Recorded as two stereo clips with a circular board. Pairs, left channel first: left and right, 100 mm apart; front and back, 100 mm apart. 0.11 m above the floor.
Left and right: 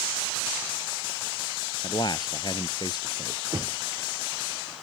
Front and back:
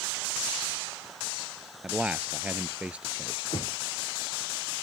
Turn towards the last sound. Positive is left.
turn(degrees=-35)